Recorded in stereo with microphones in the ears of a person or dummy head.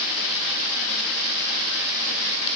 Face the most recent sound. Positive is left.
No sound to turn to.